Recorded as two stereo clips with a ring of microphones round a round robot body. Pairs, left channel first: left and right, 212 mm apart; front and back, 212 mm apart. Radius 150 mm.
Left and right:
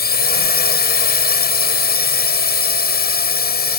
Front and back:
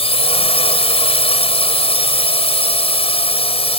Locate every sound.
0.0 s a drone: 60° left